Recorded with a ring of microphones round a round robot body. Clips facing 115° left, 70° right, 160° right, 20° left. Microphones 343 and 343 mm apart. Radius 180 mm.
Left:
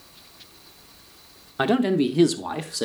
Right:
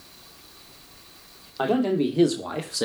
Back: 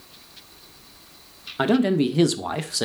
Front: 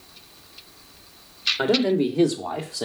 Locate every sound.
1.6 s a man speaking: 140° left, 1.3 m; by 2.9 s 150° right, 1.0 m